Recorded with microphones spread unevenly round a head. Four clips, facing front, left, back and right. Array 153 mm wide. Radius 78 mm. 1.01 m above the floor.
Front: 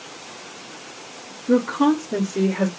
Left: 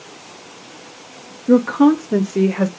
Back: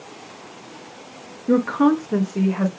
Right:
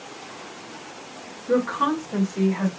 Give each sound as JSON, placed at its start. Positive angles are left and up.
{"t": 1.5, "sound": "a woman speaking", "azimuth_deg": 130, "distance_m": 0.9}